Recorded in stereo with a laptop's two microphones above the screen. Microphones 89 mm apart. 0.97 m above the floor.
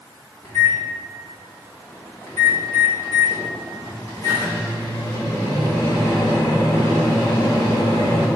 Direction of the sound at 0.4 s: 30° left (ahead or behind).